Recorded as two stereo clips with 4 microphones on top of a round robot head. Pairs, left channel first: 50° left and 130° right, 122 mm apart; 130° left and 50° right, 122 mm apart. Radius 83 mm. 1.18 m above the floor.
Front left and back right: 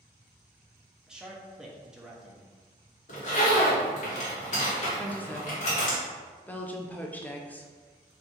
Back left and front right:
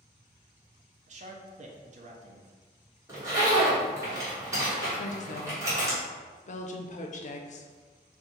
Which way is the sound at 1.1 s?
50° right.